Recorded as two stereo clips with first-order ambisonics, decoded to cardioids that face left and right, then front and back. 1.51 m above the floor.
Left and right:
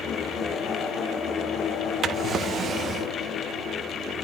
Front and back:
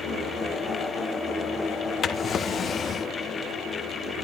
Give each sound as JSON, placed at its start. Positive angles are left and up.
{"t": 2.0, "sound": "a drawer", "azimuth_deg": -50, "distance_m": 0.7}